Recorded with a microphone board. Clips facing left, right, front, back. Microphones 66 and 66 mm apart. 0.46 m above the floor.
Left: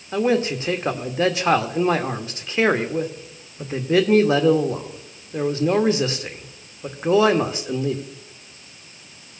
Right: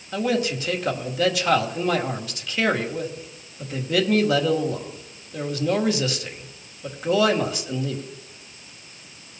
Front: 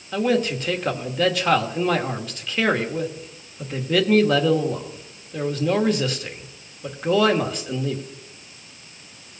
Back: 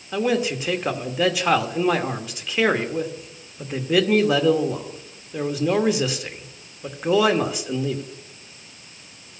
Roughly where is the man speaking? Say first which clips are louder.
Left 3 dB, front 1 dB; left.